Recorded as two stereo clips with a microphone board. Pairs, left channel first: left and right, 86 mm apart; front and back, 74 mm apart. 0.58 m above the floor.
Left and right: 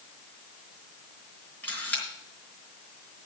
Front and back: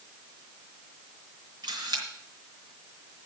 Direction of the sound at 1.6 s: 160° left.